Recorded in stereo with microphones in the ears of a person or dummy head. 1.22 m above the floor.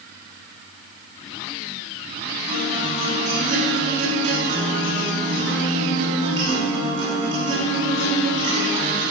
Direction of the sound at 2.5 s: 35° right (ahead or behind).